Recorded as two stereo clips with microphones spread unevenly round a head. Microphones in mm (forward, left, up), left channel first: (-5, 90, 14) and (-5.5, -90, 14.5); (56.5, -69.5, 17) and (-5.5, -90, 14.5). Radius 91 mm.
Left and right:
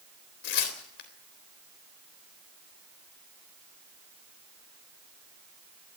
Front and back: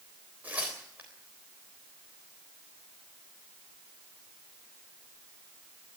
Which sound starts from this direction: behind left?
Tearing paper, at 0.4 s.